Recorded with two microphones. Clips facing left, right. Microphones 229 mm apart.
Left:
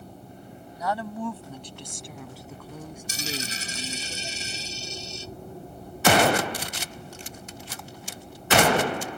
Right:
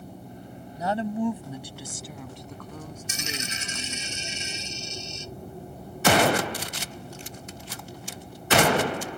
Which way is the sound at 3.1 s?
35° left (ahead or behind).